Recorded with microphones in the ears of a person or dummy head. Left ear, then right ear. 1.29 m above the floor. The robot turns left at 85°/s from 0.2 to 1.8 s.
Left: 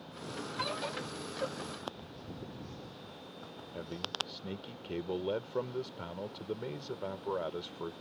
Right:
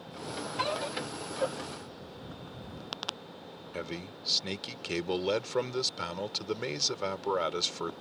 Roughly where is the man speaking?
Right.